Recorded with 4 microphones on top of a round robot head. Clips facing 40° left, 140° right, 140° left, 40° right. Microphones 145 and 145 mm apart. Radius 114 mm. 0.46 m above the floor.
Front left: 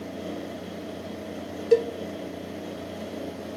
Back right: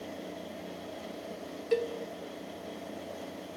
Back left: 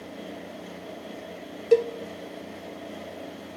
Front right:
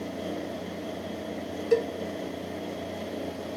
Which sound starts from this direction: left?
A cowbell, at 1.7 s.